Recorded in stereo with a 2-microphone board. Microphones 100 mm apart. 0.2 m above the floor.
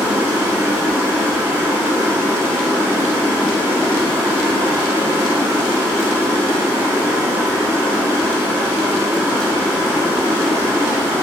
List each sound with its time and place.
0.0 s running water: 25° right (ahead or behind), 5 m